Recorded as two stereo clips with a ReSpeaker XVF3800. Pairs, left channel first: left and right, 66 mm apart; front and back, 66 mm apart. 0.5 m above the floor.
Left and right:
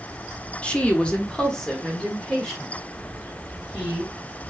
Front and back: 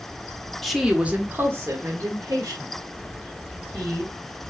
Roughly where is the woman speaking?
Left.